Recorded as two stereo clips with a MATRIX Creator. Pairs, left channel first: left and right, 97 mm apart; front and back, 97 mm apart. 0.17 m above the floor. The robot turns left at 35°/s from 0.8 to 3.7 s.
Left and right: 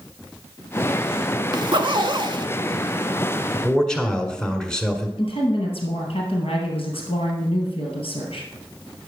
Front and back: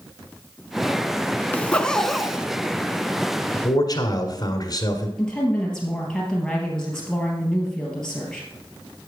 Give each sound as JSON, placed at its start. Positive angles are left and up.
{"t": 1.5, "sound": "a zipper", "azimuth_deg": -70, "distance_m": 0.5}
{"t": 3.5, "sound": "a man speaking", "azimuth_deg": 15, "distance_m": 1.5}
{"t": 5.2, "sound": "a woman speaking", "azimuth_deg": 85, "distance_m": 3.0}